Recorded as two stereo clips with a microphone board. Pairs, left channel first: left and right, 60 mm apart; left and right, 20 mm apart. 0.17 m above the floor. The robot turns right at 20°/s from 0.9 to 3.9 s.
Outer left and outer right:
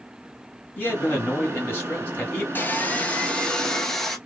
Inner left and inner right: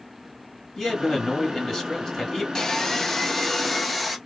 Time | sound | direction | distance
0.8 | a man speaking | 25° left (ahead or behind) | 1.3 m
2.5 | sawing | 35° left (ahead or behind) | 0.6 m